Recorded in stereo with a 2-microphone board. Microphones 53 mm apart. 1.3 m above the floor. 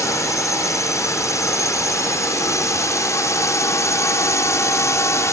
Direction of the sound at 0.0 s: 80° left.